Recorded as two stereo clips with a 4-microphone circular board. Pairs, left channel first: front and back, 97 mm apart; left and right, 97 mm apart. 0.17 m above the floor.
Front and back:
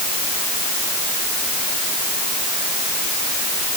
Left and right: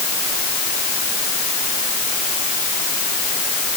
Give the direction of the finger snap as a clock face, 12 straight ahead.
No finger snap in this recording.